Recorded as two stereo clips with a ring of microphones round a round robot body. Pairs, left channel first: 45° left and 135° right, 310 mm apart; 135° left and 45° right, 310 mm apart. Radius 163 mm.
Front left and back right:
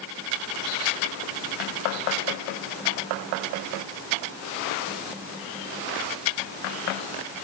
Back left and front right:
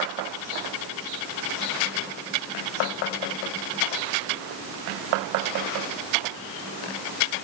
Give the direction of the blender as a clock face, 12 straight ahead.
I don't hear a blender.